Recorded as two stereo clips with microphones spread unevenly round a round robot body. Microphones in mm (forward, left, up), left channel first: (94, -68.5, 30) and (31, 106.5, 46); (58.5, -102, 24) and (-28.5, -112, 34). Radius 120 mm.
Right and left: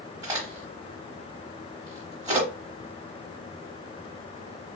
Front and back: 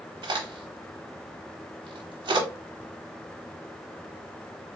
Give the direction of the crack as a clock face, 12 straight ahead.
6 o'clock.